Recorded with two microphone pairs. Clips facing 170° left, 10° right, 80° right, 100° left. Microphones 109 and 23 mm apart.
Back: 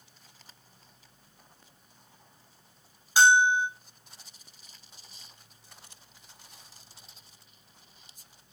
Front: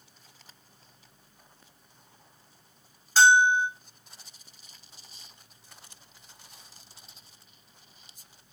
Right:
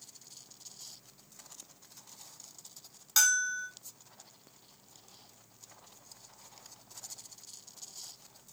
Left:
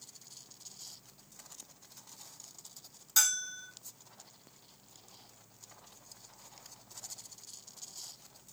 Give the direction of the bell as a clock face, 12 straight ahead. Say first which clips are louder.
Front 1 dB, right 4 dB; 4 o'clock.